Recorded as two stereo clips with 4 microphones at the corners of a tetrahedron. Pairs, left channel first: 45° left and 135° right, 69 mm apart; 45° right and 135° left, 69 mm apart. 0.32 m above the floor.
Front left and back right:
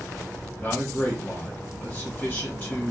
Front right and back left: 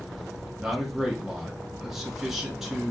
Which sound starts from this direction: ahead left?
A man speaking, at 0.6 s.